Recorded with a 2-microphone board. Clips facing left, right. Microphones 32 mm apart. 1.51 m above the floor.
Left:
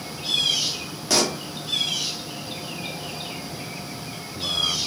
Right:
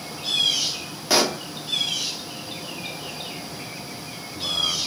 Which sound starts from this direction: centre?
A pop, at 1.1 s.